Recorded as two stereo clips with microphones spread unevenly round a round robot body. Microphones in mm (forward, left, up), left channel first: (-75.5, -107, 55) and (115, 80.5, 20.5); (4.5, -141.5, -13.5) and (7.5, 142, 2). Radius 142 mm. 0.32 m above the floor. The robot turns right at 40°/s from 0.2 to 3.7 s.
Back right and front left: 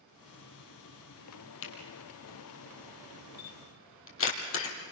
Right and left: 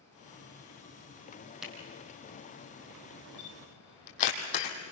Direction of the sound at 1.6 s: Straight behind.